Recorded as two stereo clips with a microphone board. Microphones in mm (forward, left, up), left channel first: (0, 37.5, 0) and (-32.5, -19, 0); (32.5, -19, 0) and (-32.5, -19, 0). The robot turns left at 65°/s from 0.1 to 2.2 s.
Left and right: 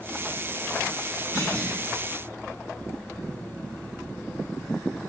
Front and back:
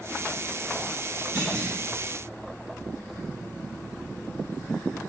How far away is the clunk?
About 1.6 m.